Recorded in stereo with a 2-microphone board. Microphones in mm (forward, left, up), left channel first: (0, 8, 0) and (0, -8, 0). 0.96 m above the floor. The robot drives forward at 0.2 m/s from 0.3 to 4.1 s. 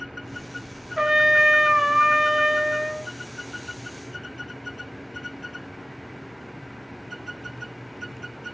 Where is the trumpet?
50° right (ahead or behind), 0.7 m.